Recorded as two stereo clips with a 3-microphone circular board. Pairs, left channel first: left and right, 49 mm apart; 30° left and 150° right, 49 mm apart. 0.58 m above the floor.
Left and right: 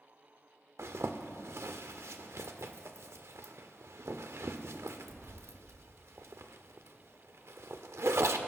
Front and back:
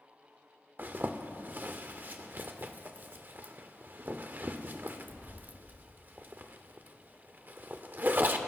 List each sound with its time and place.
0.8 s a zipper: 105° right, 0.7 m